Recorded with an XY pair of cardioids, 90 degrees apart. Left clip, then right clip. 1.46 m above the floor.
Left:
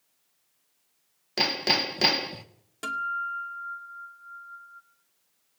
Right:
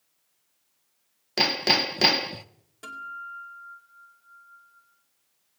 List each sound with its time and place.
1.4 s hammering: 25° right, 1.2 m
2.8 s a guitar: 65° left, 2 m